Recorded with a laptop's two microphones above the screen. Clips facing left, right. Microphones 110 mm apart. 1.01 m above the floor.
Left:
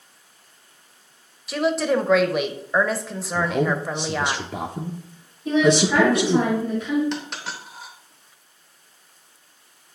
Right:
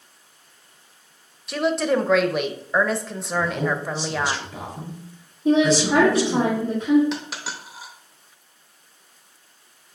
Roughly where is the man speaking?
Left.